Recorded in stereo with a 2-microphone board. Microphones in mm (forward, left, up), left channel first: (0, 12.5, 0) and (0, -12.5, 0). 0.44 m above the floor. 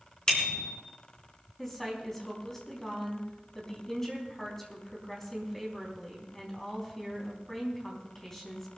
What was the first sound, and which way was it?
A bicycle bell, 35° left (ahead or behind).